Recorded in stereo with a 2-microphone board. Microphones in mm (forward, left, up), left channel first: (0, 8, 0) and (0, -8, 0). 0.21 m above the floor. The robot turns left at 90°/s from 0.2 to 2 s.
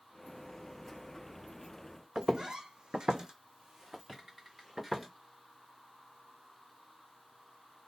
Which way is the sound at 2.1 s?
55° right (ahead or behind).